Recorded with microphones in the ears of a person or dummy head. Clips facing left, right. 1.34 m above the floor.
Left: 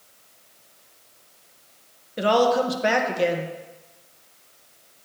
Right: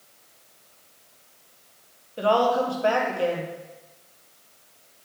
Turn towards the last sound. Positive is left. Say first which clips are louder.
# left 2 dB
turn(degrees=20)  # may be behind; listen again after turning